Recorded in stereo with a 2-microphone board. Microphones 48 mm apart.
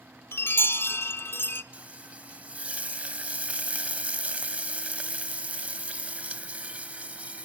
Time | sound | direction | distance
0.3 | a chime | 50° left (ahead or behind) | 0.9 m
1.7 | frying | 30° right (ahead or behind) | 0.5 m